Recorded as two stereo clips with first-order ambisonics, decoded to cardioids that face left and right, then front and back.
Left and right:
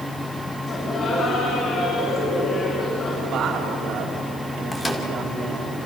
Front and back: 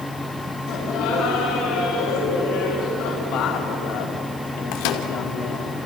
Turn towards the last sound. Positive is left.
turn(degrees=10)